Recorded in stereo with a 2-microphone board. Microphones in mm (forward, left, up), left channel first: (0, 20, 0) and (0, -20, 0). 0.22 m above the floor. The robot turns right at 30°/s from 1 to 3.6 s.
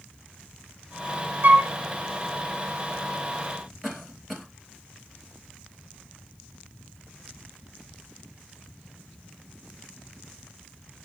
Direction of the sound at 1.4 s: 50° right (ahead or behind).